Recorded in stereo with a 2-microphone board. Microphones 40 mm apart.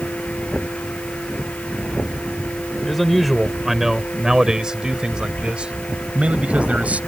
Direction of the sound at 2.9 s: Centre (ahead or behind).